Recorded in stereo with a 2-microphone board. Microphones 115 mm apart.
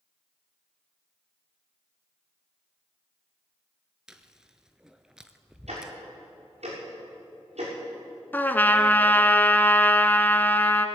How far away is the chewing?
About 0.7 m.